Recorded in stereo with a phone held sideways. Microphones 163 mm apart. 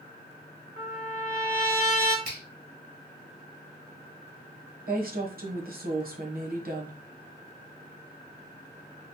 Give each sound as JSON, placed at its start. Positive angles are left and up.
{"t": 0.8, "sound": "a trumpet", "side_deg": 45, "distance_m": 1.1}
{"t": 2.2, "sound": "a finger snap", "side_deg": -65, "distance_m": 1.4}
{"t": 4.9, "sound": "a woman speaking", "side_deg": -55, "distance_m": 1.0}